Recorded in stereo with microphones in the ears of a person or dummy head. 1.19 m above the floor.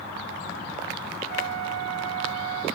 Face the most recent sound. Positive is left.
turn(degrees=-50)  # may be behind; listen again after turning